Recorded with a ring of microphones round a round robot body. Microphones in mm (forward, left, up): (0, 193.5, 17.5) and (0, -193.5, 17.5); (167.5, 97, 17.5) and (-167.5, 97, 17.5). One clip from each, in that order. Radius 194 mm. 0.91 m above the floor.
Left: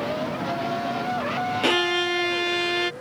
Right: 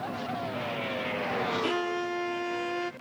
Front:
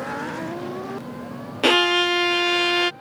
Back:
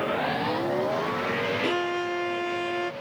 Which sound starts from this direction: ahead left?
A violin, at 1.6 s.